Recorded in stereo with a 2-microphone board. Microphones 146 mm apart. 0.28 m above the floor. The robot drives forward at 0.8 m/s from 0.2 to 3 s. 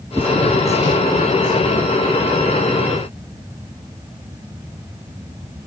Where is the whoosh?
15° right (ahead or behind).